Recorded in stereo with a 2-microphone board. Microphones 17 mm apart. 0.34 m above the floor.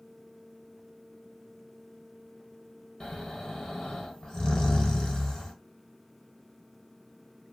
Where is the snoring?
40° left (ahead or behind), 0.8 m.